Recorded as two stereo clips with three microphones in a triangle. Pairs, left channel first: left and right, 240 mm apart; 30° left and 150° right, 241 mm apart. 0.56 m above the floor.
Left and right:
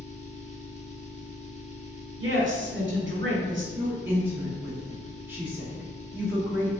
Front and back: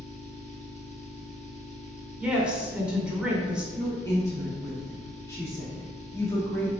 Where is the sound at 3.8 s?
25° right, 1.1 m.